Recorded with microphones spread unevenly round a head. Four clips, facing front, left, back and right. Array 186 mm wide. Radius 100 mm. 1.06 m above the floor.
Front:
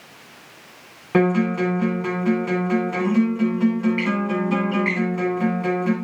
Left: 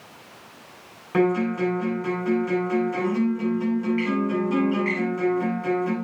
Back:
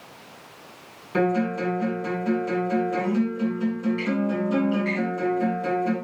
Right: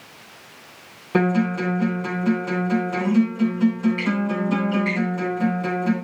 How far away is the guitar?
About 8.5 m.